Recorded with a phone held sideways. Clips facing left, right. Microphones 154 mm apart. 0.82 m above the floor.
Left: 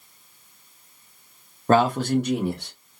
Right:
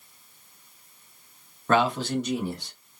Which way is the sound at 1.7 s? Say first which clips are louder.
Left 4 dB; 35° left (ahead or behind).